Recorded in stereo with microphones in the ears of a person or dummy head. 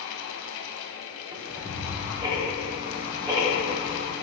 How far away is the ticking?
About 2.5 m.